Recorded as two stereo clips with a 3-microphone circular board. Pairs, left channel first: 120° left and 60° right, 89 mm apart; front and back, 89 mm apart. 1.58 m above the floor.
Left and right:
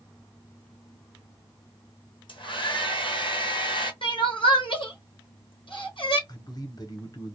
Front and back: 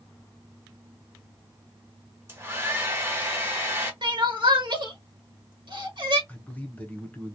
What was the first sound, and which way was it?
A hair dryer, 120° left.